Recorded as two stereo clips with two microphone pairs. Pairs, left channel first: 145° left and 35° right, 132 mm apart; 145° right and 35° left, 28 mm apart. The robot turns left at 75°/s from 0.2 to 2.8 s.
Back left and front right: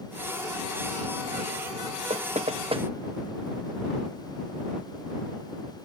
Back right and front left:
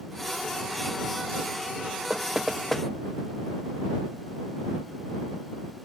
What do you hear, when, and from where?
2.1 s knocking: 20° right; by 2.9 s 75° right